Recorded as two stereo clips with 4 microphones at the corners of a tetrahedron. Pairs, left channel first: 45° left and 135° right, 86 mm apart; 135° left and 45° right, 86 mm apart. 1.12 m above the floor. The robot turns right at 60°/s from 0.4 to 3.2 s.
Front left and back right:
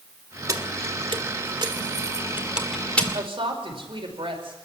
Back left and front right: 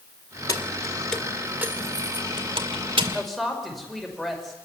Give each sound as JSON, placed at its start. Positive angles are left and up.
{"t": 0.5, "sound": "keys jangling", "azimuth_deg": 180, "distance_m": 2.0}
{"t": 3.1, "sound": "a woman speaking", "azimuth_deg": -140, "distance_m": 5.5}